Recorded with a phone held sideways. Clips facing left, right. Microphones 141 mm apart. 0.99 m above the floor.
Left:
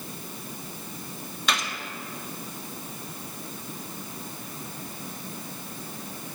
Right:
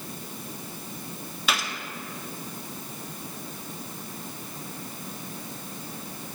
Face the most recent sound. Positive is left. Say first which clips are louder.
# even
turn(degrees=-5)  # may be behind; listen again after turning